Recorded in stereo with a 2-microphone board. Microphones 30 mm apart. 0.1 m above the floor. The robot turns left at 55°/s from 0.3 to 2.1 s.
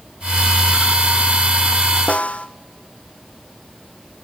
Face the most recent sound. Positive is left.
turn(degrees=60)  # may be behind; listen again after turning